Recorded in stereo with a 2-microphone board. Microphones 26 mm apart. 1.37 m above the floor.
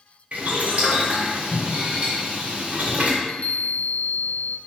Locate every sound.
0.3 s boiling: 60° right (ahead or behind), 2.5 m
3.2 s a chime: 65° left (ahead or behind), 0.6 m